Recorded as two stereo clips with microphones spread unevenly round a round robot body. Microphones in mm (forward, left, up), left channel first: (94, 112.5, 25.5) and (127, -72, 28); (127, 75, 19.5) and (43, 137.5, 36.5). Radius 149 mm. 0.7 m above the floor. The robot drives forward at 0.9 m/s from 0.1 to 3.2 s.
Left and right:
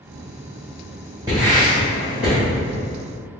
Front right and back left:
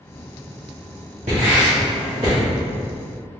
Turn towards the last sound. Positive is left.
turn(degrees=-170)